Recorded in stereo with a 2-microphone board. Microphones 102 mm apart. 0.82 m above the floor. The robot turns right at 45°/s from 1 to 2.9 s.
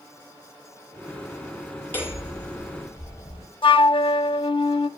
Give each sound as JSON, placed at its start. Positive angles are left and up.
{"t": 1.9, "sound": "hammering", "azimuth_deg": 20, "distance_m": 8.0}
{"t": 3.6, "sound": "a flute", "side_deg": 60, "distance_m": 0.7}